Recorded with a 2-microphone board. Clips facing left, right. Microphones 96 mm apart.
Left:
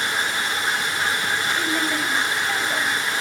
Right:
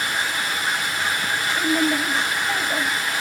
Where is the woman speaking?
10° right (ahead or behind), 1.5 m.